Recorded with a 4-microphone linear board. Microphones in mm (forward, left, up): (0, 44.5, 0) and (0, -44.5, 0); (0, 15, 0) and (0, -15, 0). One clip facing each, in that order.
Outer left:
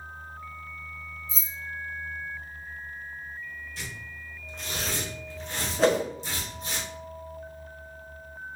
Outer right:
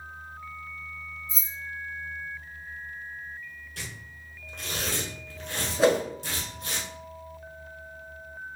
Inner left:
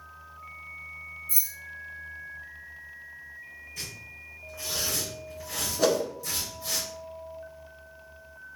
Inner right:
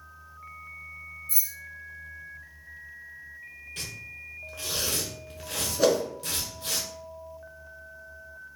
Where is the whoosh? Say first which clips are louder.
Outer right 1 dB, inner right 2 dB; 5° right (ahead or behind), 0.6 m.